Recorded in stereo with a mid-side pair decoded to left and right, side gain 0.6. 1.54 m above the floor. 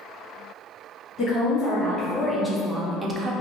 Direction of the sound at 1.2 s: 45° left.